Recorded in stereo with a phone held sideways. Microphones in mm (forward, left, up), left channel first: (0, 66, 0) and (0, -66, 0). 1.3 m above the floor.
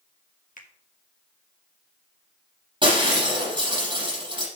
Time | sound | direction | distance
0.6 | a finger snap | 80° left | 1.5 m
2.8 | breaking glass | 40° right (ahead or behind) | 5.5 m